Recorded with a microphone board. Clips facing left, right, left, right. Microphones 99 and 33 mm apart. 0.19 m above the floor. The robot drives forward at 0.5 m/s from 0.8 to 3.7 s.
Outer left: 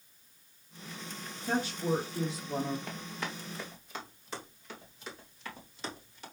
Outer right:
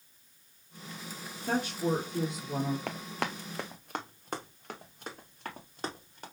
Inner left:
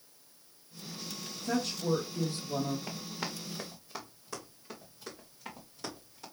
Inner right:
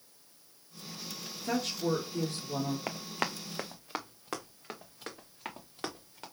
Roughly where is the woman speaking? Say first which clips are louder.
Outer right 1 dB, even; right.